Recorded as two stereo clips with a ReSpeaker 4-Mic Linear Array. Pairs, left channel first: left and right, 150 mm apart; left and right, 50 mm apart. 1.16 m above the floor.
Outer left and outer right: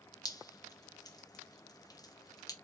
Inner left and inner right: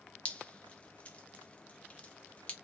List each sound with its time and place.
0.2 s dripping: 25° left (ahead or behind), 1.0 m